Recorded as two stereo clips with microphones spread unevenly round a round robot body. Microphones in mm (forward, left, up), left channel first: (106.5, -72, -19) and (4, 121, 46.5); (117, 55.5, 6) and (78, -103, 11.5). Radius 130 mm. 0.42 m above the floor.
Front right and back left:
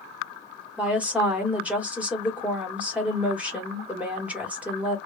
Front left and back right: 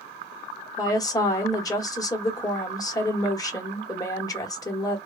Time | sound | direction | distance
0.8 | a woman speaking | 20° left | 1.2 m